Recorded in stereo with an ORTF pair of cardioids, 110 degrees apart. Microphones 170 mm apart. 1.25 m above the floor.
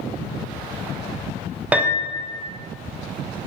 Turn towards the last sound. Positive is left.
turn(degrees=-10)